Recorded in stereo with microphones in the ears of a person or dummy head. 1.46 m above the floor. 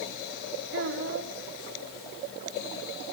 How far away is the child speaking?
About 3 m.